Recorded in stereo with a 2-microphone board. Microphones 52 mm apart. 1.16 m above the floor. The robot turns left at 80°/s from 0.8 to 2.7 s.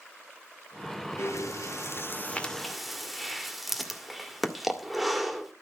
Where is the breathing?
60° left (ahead or behind), 1.9 m; by 5.5 s centre (ahead or behind), 1.9 m.